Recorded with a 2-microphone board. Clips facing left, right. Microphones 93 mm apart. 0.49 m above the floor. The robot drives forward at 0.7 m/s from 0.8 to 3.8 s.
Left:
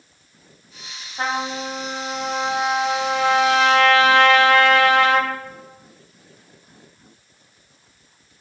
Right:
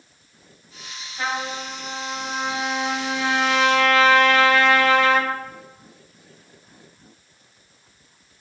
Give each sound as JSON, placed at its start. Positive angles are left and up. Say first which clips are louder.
{"t": 1.2, "sound": "a trumpet", "louder": "left 3 dB", "side_deg": 40, "distance_m": 3.0}